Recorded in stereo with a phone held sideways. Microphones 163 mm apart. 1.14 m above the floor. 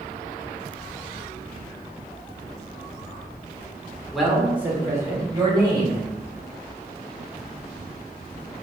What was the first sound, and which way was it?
A man speaking, centre (ahead or behind).